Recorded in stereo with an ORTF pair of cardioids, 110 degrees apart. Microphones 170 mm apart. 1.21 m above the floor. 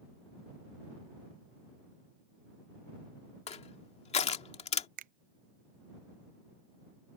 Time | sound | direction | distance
3.5 | crushing | 40° left | ?
5.0 | a finger snap | 55° right | ?